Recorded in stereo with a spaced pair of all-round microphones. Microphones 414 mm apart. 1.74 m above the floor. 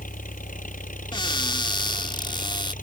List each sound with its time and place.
0.0 s an engine running: 20° left (ahead or behind)
1.1 s a cupboard door: 10° left (ahead or behind)